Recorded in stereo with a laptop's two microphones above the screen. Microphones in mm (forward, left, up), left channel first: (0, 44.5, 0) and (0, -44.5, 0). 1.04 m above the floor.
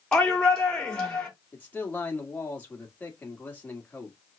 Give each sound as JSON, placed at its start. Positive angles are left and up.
{"t": 0.1, "sound": "a shout", "side_deg": 10, "distance_m": 2.5}
{"t": 1.5, "sound": "a man speaking", "side_deg": 20, "distance_m": 2.0}